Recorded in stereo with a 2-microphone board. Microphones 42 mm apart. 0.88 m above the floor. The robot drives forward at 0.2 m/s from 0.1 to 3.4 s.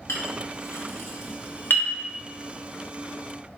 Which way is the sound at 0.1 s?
85° left.